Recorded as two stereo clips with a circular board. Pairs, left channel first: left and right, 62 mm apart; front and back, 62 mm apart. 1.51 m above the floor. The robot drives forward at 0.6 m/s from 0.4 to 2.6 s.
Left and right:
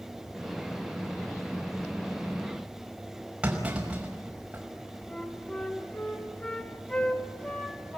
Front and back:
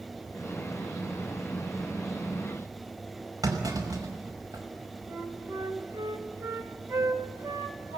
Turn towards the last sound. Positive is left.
turn(degrees=155)